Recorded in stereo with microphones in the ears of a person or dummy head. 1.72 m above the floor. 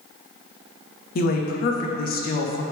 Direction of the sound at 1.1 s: 55° left (ahead or behind).